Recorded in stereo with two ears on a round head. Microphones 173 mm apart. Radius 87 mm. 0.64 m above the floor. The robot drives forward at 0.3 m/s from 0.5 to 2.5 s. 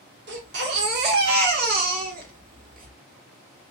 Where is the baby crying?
55° right (ahead or behind), 1.4 m; by 2.9 s 45° right (ahead or behind), 1.6 m.